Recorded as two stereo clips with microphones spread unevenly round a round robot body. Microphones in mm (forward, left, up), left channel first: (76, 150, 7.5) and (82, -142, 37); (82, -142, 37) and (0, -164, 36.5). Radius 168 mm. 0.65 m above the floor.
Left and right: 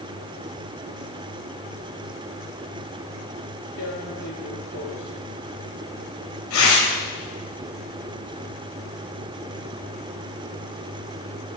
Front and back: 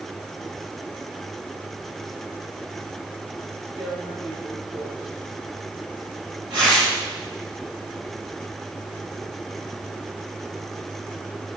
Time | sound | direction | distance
3.8 | tearing paper | 140° left | 4 m